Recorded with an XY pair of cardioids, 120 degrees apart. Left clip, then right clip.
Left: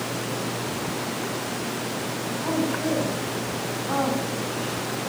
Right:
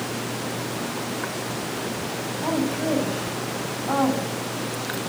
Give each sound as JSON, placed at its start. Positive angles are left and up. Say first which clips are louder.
{"t": 2.4, "sound": "a woman speaking", "louder": "right 1 dB", "azimuth_deg": -30, "distance_m": 8.0}